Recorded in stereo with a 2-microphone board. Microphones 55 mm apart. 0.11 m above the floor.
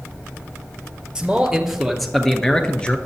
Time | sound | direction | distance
1.1 | a man speaking | 10° right (ahead or behind) | 2 m